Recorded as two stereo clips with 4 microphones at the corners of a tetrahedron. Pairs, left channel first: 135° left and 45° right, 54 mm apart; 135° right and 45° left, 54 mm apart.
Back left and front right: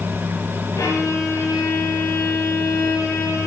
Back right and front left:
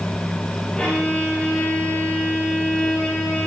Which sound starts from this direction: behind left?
A violin, at 0.8 s.